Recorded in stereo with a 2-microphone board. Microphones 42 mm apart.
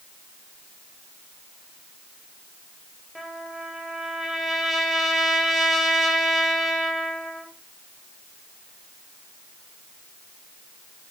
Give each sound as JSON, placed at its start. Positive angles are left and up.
{"t": 3.1, "sound": "a trumpet", "side_deg": 0, "distance_m": 2.5}